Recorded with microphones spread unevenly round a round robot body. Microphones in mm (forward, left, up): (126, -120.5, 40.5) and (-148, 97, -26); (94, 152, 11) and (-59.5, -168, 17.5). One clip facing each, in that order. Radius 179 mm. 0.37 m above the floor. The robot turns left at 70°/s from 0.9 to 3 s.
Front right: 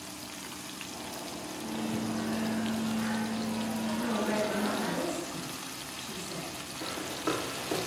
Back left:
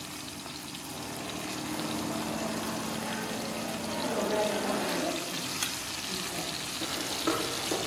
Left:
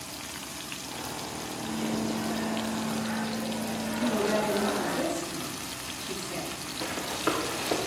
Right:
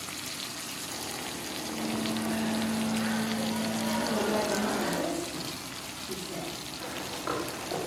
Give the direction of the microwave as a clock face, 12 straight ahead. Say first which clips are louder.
Front right 2 dB, left 2 dB; 12 o'clock.